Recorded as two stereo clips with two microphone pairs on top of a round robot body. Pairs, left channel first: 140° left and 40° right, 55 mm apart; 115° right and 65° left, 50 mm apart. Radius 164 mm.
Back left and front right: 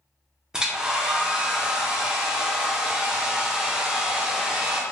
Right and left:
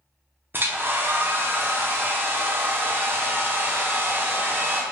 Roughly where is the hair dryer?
Ahead left.